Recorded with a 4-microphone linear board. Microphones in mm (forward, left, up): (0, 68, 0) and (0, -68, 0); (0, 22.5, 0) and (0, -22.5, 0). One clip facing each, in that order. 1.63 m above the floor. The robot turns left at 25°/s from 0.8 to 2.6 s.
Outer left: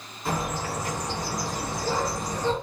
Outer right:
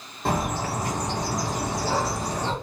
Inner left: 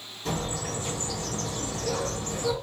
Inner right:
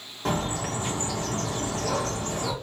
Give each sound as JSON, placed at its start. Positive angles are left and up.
{"t": 0.2, "sound": "a bird", "azimuth_deg": -65, "distance_m": 2.0}